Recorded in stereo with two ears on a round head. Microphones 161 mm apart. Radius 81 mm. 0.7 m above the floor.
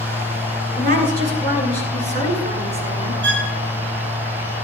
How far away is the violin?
About 6.5 m.